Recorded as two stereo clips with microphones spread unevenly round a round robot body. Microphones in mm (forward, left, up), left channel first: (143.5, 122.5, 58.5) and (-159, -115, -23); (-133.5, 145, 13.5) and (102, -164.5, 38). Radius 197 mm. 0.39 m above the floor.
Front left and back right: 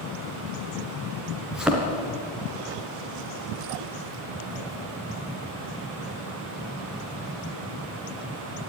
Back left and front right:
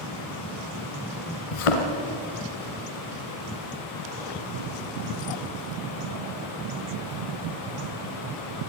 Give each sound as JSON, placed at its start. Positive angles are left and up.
{"t": 1.5, "sound": "a thud", "azimuth_deg": 130, "distance_m": 3.0}